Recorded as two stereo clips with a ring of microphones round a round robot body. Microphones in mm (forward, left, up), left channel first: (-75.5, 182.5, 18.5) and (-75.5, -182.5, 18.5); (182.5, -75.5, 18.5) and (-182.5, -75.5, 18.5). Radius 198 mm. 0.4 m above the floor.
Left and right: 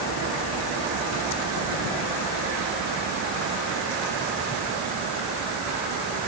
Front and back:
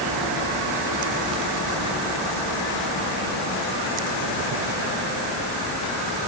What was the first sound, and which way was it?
Only background noise.